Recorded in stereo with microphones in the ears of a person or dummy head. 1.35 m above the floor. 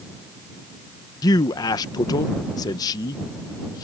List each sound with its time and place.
1.2 s a man speaking: 20° left (ahead or behind)